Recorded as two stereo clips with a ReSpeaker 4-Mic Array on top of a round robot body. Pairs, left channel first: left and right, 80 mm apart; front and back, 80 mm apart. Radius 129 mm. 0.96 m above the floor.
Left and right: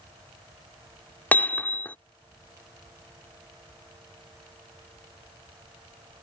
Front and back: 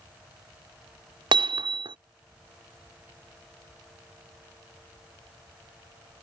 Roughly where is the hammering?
Behind.